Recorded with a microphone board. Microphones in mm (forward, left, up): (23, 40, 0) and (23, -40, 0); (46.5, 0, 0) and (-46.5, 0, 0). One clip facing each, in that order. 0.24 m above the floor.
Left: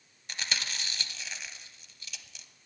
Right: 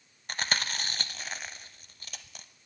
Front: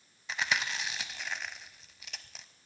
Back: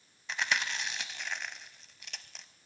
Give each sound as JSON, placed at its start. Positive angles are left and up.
{"t": 0.3, "sound": "chewing", "azimuth_deg": -90, "distance_m": 0.6}